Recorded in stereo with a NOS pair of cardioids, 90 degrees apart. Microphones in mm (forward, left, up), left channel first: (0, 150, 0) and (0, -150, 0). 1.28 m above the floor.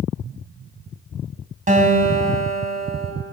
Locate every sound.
1.7 s a guitar: 25° right, 3.5 m